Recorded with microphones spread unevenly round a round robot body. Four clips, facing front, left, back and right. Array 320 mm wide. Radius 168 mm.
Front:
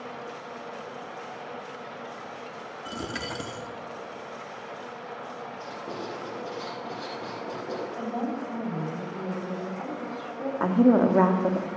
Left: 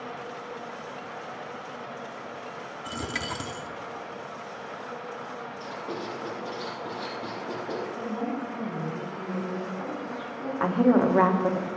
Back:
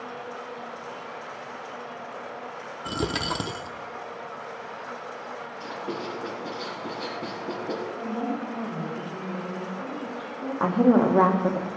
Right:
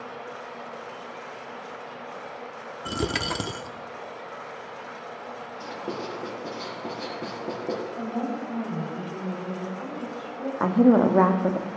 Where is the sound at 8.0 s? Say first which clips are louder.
Right 1 dB, back 1 dB; 30° right, 3.5 m.